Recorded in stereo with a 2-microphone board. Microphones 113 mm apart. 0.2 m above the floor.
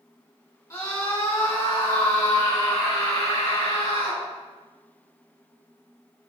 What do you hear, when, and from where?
0.7 s a scream: 30° left (ahead or behind), 2.5 m; by 4.2 s 45° left (ahead or behind), 4 m